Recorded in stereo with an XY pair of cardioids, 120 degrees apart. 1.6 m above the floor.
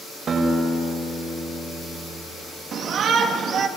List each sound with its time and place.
0.3 s a guitar: 50° right, 7 m
2.7 s a shout: 50° right, 2.5 m